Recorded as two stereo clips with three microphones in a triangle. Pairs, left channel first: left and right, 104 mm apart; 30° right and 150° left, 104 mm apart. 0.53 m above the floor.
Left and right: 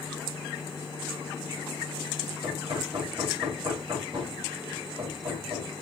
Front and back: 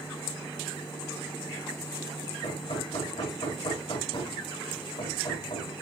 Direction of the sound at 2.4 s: 50° right.